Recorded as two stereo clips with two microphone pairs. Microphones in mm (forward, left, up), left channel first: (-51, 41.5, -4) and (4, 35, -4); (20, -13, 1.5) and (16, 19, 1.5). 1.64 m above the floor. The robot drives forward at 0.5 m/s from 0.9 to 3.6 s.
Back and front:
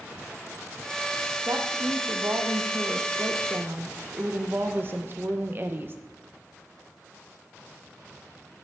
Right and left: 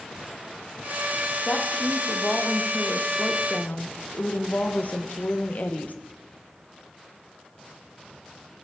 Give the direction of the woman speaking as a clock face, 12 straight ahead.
1 o'clock.